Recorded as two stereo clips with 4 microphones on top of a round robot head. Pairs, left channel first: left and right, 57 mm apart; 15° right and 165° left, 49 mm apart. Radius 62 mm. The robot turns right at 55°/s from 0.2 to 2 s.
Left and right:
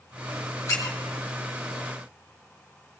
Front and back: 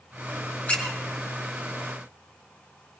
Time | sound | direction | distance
0.7 | a squeak | 45° left | 1.6 m